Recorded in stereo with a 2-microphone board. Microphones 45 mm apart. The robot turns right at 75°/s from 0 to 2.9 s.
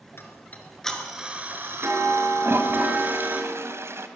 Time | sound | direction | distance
0.2 | ticking | 120° left | 5 m
2.4 | a toilet flushing | 125° right | 2.5 m